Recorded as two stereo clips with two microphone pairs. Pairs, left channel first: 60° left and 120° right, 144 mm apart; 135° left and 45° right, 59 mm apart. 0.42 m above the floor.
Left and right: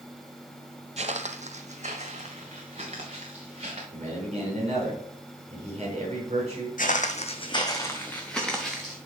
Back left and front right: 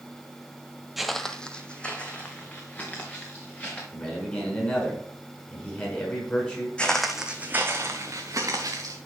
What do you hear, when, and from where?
1.0 s footsteps: 130° right, 0.5 m; by 3.8 s 165° right, 3 m
3.9 s a man speaking: 160° right, 4.5 m
6.8 s footsteps: 60° left, 1.1 m; by 9.0 s 30° right, 2.5 m